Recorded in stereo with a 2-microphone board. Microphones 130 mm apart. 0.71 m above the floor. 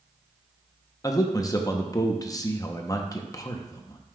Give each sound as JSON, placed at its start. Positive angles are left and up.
{"t": 1.0, "sound": "a man speaking", "side_deg": 25, "distance_m": 0.7}